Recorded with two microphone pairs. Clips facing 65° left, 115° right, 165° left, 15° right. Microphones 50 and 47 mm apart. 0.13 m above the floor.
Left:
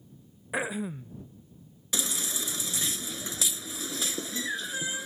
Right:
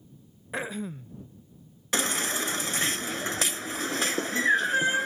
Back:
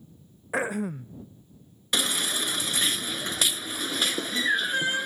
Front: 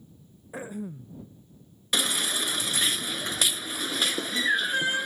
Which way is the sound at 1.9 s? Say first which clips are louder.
Right 7 dB, even; 105° right.